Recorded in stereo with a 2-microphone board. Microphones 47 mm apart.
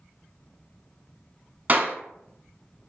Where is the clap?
40° right (ahead or behind), 0.9 m.